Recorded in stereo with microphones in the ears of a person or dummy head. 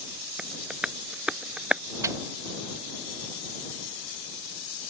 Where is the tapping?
5° right (ahead or behind).